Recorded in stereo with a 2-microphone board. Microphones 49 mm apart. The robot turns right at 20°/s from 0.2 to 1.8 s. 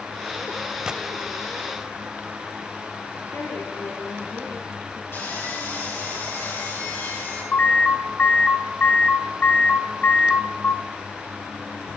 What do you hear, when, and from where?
0.9 s a gunshot: 20° right (ahead or behind), 0.6 m
3.3 s a woman speaking: 70° left (ahead or behind), 7.5 m
5.1 s sawing: 60° left (ahead or behind), 9 m
7.5 s an alarm: 40° left (ahead or behind), 1.6 m